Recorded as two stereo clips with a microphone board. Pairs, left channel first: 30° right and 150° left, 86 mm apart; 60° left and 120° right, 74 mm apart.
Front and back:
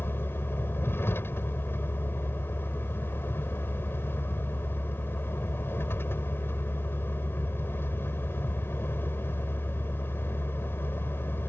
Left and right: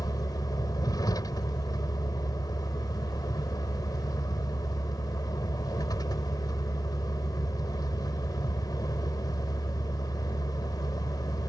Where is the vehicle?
30° left.